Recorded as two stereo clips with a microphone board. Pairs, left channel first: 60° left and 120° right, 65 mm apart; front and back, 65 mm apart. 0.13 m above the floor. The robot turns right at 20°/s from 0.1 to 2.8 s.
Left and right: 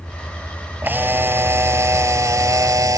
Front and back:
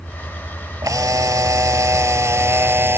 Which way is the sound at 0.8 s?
175° right.